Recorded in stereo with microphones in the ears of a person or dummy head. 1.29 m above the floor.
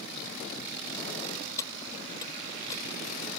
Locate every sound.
1.6 s keys jangling: 25° left (ahead or behind)